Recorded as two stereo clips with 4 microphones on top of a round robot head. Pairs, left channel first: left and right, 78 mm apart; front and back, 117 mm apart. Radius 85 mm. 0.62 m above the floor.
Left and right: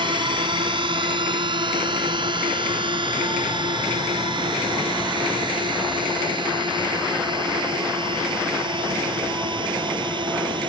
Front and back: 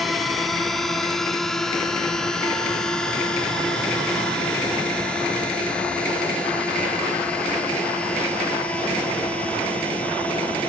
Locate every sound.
0.0 s a drone: 90° right; by 10.7 s 80° right